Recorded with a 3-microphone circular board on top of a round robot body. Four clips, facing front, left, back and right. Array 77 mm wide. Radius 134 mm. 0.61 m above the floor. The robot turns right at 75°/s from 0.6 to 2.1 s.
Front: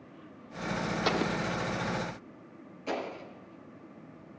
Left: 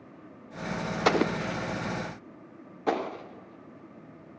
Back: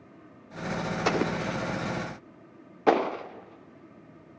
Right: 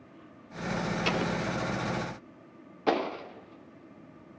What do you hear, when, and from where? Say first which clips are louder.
1.1 s an explosion: left 8 dB, back 4 dB; 100° left, 0.5 m; by 4.4 s straight behind, 0.5 m